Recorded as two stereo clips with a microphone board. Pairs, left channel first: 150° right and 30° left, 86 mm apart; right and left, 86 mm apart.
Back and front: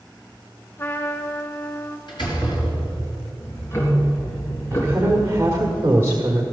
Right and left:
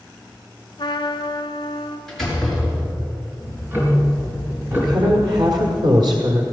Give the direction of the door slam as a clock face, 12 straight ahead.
6 o'clock.